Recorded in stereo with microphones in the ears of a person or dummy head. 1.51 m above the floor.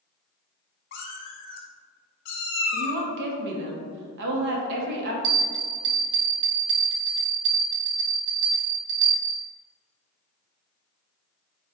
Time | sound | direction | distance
0.9 | a cat meowing | 50° left (ahead or behind) | 1.0 m
2.7 | a woman speaking | 60° right (ahead or behind) | 1.4 m
5.2 | a bell | 30° right (ahead or behind) | 0.7 m